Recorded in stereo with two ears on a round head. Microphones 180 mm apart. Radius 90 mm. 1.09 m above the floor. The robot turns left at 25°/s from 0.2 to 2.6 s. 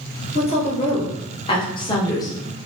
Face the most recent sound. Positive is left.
turn(degrees=30)